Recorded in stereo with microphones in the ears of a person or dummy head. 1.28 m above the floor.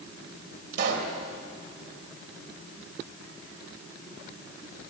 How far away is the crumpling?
No crumpling in this recording.